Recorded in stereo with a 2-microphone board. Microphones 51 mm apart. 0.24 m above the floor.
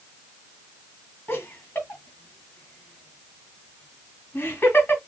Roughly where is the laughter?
Left.